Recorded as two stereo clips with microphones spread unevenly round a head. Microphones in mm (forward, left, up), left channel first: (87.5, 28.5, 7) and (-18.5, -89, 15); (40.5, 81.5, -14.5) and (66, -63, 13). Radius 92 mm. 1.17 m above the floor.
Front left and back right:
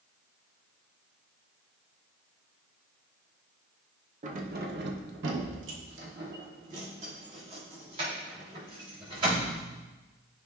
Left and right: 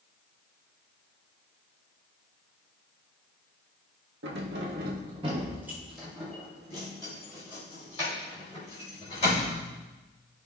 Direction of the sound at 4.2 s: 90° right.